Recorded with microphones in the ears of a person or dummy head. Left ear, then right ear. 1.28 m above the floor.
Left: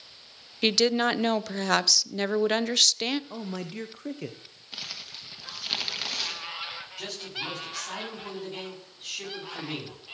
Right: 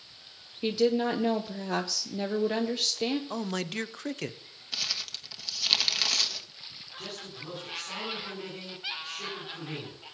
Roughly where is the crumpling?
Centre.